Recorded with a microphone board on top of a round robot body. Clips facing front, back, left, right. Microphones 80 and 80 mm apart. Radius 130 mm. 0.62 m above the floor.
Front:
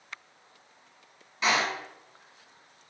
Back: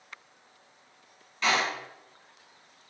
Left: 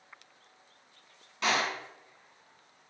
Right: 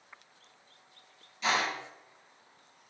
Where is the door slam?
75° left, 1.4 m.